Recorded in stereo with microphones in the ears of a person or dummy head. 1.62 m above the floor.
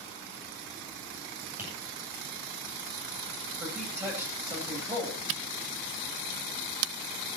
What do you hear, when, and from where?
1.6 s tapping: 20° right (ahead or behind), 9.5 m
3.6 s a man speaking: 15° right (ahead or behind), 9.5 m
5.3 s a camera shutter: 75° right (ahead or behind), 0.7 m